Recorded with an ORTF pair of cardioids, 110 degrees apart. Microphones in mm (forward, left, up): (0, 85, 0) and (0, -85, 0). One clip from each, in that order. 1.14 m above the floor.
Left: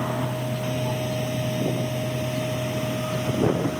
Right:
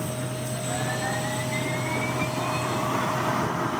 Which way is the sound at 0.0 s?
25° left.